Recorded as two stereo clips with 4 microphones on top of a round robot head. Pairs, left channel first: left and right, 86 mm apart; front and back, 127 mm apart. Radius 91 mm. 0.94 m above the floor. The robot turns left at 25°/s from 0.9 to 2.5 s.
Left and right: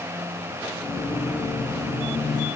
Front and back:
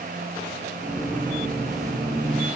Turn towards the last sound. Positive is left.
No sound to turn to.